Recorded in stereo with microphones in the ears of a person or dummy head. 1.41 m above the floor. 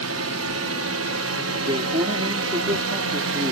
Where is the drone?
75° right (ahead or behind); by 3.5 s 70° right (ahead or behind).